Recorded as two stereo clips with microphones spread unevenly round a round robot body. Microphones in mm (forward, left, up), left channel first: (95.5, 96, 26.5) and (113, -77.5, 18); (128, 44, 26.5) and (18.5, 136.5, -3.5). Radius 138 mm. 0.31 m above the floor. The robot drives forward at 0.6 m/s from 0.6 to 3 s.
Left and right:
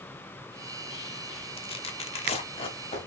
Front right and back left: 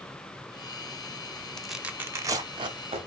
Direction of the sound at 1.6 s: 65° left.